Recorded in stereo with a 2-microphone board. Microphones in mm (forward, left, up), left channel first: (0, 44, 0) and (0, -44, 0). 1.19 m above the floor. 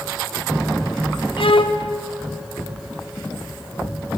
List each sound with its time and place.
1.4 s a violin: 80° left, 1.3 m